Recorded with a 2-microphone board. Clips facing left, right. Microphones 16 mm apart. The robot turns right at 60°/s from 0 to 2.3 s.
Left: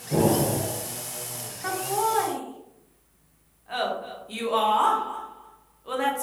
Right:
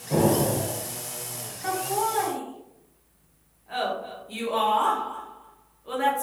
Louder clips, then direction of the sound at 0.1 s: Even; 65° right.